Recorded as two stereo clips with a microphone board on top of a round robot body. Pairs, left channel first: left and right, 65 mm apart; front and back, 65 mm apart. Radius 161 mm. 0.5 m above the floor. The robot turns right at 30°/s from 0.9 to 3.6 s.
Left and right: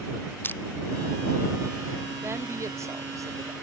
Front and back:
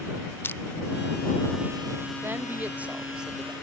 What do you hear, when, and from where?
0.4 s crushing: 40° left
2.2 s a woman speaking: 135° right; by 3.5 s 95° right